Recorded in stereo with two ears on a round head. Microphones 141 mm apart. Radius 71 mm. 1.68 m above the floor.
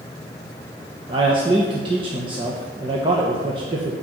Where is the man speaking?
35° right (ahead or behind), 1.2 m.